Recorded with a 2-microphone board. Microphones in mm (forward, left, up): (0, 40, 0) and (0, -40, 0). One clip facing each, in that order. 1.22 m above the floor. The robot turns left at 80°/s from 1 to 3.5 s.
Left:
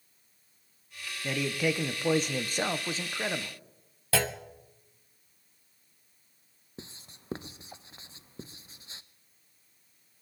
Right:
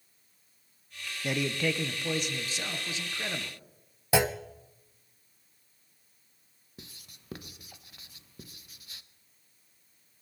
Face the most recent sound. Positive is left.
turn(degrees=30)  # may be behind; listen again after turning